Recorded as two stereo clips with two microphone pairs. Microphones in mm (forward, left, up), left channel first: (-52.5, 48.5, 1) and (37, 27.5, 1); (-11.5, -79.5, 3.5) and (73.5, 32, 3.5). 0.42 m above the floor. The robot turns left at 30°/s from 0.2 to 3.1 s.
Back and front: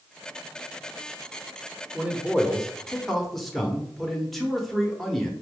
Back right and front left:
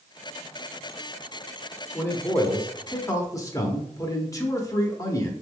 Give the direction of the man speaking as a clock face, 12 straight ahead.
2 o'clock.